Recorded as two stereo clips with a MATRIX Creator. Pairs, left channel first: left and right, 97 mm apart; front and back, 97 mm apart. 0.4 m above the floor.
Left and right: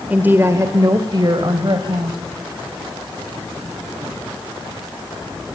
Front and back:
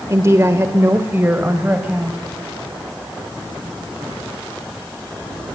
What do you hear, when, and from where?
0.1 s a woman speaking: 155° right, 1.0 m; by 2.2 s 110° right, 2 m